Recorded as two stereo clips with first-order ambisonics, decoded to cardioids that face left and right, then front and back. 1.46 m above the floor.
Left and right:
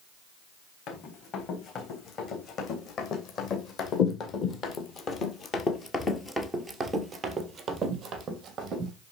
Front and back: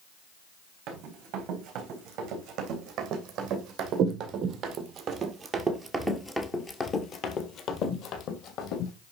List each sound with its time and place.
0.9 s running footsteps: 140° left, 5.5 m; by 8.9 s 30° right, 3 m